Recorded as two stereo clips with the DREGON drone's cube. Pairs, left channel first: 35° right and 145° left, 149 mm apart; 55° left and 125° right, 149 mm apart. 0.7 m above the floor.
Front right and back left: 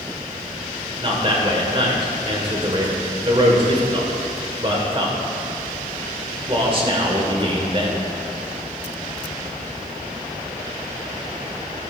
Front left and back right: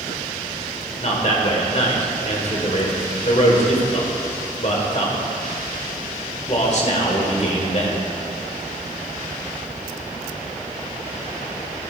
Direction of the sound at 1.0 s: 95° left.